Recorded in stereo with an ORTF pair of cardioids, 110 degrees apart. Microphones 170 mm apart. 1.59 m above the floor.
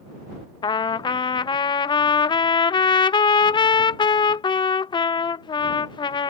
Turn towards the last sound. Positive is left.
turn(degrees=25)